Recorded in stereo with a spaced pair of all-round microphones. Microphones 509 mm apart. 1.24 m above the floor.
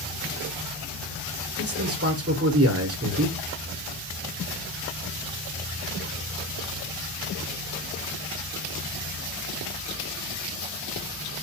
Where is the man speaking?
30° right (ahead or behind), 0.8 m.